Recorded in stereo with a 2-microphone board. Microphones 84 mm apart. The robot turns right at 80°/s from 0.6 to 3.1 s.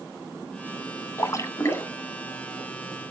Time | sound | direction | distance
1.2 | a splash | 70° left | 1.5 m